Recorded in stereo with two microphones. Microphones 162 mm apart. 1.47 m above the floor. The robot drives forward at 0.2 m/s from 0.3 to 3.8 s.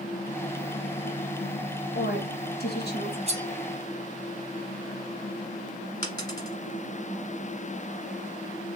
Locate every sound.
1.9 s a woman speaking: 90° left, 0.8 m; by 3.2 s 75° left (ahead or behind), 0.8 m
3.3 s cutlery clinking: 40° right (ahead or behind), 0.7 m
6.0 s a dropped coin: 25° left (ahead or behind), 1.5 m